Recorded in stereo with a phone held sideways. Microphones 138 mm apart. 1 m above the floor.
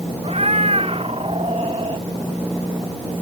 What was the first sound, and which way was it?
A cat meowing, 50° right (ahead or behind).